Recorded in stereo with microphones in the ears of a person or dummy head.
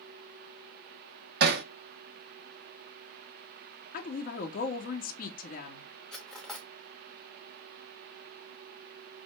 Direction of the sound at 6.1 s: 5° left (ahead or behind).